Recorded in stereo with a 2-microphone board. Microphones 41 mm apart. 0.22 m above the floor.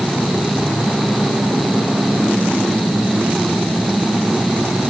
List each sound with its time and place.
Only background noise.